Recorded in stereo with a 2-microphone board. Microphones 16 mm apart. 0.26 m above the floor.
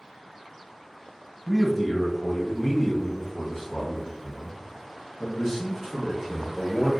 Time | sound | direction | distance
1.5 | a man speaking | 5° left (ahead or behind) | 1.3 m